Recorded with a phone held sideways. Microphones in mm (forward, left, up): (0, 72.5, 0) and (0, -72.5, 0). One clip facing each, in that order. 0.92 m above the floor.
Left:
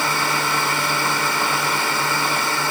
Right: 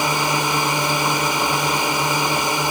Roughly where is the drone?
Centre.